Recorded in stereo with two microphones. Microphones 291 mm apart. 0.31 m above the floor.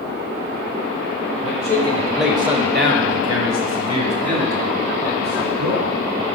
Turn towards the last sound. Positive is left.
turn(degrees=-80)